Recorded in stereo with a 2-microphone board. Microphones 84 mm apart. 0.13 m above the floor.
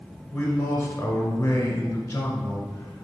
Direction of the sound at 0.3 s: 10° left (ahead or behind).